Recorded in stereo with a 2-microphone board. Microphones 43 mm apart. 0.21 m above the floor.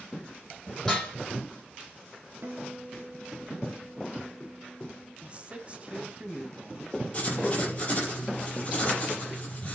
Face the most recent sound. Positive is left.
turn(degrees=30)  # may be behind; listen again after turning